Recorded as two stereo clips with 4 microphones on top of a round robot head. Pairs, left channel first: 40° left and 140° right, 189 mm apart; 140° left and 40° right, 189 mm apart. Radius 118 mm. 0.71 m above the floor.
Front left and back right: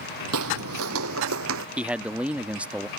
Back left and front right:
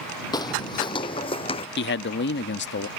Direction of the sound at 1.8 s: 135° left.